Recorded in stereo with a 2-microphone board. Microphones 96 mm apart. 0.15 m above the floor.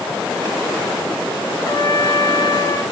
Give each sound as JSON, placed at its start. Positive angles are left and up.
{"t": 1.6, "sound": "a trumpet", "side_deg": 40, "distance_m": 0.7}